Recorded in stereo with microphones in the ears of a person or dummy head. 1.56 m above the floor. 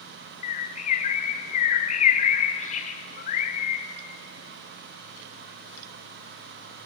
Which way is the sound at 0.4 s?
45° left (ahead or behind).